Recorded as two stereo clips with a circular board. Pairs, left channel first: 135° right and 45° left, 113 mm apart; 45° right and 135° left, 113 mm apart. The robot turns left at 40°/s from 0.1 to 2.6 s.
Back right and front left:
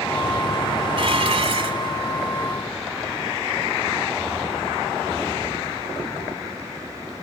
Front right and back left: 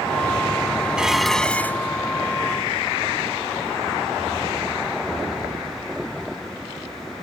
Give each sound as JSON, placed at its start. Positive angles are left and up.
{"t": 1.0, "sound": "dishes clattering", "azimuth_deg": 55}